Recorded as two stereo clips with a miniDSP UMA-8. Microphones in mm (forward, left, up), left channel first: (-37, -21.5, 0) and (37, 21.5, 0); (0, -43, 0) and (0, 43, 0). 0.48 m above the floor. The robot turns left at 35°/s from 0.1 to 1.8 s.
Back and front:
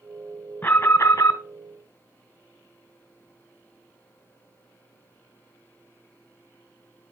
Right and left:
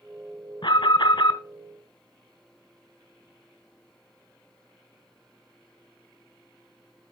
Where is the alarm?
85° right, 1.2 m; by 1.4 s 110° right, 1.2 m.